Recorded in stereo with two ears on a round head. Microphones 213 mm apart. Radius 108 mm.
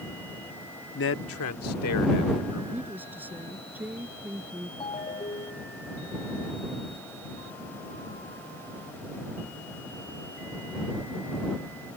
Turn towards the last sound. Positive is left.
turn(degrees=20)  # may be behind; listen again after turning